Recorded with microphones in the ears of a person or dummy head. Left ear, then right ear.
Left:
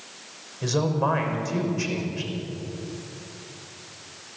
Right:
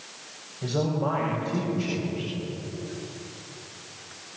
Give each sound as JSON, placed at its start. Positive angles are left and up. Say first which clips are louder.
{"t": 0.6, "sound": "a man speaking", "louder": "left 3 dB", "side_deg": 55, "distance_m": 6.0}